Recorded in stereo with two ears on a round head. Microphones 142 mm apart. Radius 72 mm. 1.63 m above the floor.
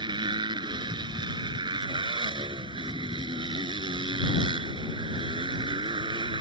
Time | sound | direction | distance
0.0 | a motorcycle | 30° right (ahead or behind) | ?